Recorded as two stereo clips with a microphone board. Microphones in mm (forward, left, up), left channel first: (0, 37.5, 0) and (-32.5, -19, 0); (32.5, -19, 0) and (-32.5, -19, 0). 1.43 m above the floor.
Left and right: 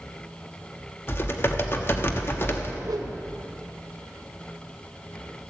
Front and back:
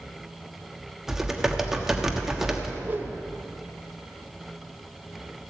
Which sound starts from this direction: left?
Typing on a keyboard, at 1.1 s.